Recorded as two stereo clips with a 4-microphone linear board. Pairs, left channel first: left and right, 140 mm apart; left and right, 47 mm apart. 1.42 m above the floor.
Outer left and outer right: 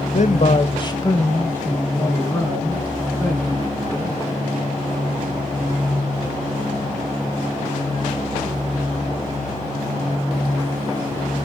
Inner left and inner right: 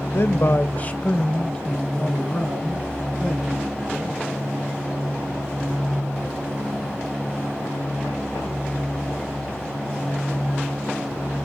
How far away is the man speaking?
About 0.6 m.